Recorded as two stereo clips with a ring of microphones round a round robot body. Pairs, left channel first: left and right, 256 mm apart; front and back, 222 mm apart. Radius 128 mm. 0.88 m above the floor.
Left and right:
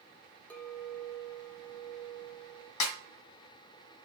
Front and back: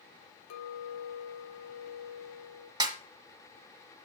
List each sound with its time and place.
0.5 s a clink: 5° left, 1.6 m
2.8 s a snare drum: 105° left, 2.0 m